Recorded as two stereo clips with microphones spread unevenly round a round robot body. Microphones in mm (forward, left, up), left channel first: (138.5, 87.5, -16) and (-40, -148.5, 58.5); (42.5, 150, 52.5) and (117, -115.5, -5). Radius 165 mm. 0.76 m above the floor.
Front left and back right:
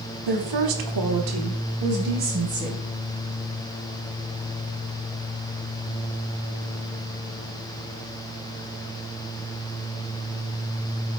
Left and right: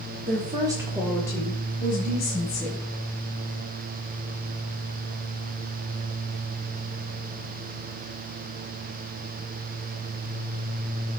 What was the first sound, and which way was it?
A woman speaking, 130° right.